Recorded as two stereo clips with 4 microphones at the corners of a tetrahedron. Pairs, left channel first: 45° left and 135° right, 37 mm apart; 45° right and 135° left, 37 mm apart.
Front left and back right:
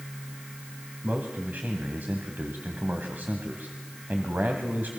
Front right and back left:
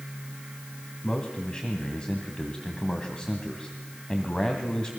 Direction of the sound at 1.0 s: 110° right.